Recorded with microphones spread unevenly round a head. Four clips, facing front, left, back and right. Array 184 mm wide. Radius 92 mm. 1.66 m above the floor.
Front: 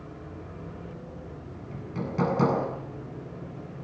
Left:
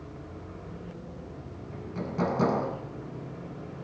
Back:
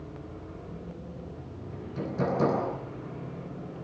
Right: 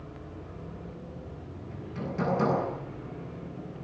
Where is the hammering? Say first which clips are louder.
Left 1 dB, front 2 dB; 20° left, 8.5 m.